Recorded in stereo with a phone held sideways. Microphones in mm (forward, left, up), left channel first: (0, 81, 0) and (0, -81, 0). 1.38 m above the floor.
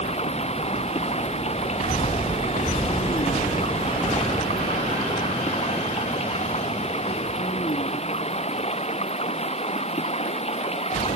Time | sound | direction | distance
0.0 | running water | 40° left (ahead or behind) | ?